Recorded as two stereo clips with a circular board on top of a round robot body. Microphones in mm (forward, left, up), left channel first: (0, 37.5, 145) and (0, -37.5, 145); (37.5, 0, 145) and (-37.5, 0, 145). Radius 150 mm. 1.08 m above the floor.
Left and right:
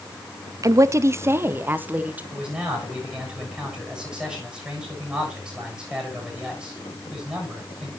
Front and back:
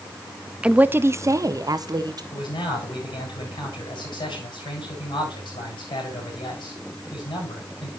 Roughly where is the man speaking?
Ahead.